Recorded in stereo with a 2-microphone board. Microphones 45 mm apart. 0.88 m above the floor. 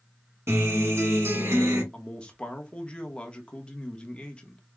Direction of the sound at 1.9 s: 25° left (ahead or behind).